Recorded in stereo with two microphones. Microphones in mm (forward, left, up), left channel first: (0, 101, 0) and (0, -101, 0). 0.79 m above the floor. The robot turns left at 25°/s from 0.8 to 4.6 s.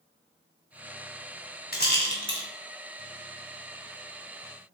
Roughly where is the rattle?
Left.